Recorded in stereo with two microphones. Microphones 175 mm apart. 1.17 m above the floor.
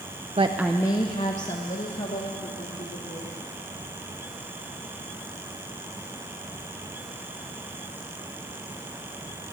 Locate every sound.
0.4 s a woman speaking: 35° right (ahead or behind), 0.6 m; by 3.3 s 60° left (ahead or behind), 4 m